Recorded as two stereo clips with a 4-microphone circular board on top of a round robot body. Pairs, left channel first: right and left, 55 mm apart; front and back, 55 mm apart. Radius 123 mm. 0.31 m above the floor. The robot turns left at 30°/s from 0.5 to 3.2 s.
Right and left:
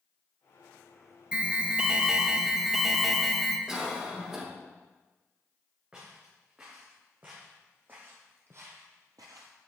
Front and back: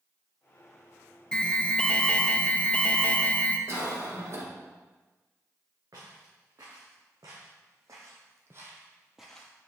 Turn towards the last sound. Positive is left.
turn(degrees=70)